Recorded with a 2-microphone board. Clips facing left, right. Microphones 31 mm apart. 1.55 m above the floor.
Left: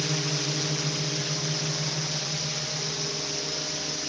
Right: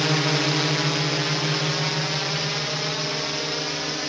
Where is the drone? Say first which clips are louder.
Right 7 dB; 60° right (ahead or behind); by 4.1 s 40° right (ahead or behind).